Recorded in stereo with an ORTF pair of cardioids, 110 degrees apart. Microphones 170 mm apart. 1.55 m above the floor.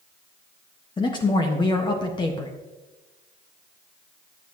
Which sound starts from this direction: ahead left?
A man speaking, at 1.0 s.